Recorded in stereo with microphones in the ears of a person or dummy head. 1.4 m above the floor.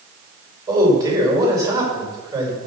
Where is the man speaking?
20° right (ahead or behind), 5.5 m.